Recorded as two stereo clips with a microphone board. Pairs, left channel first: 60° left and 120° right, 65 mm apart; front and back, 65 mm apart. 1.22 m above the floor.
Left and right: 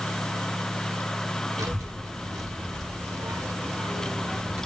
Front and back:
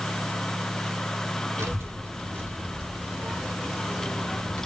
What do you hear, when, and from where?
1.6 s a child speaking: 140° right, 1.5 m; by 4.7 s 55° right, 1.1 m